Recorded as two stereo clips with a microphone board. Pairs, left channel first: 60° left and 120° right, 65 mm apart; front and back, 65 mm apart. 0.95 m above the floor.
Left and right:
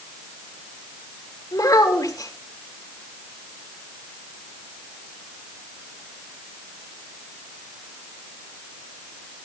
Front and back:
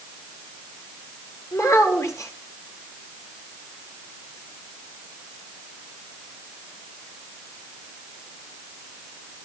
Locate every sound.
1.5 s a child speaking: 35° left, 2.5 m